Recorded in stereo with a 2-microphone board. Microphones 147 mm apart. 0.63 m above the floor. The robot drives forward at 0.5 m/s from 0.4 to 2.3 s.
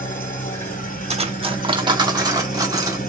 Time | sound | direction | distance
0.0 | an engine running | 65° left (ahead or behind) | 2.0 m
1.1 | cutlery clinking | 45° right (ahead or behind) | 0.6 m